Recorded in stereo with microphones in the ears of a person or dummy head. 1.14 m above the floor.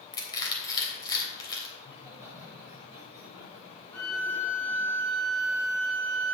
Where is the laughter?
15° right (ahead or behind), 3 m.